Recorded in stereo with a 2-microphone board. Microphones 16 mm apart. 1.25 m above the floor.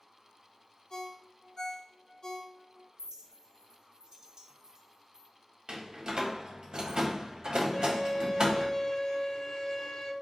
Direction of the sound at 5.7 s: 55° right (ahead or behind).